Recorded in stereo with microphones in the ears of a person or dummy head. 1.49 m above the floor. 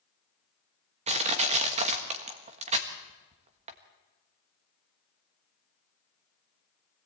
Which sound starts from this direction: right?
Crushing, at 1.1 s.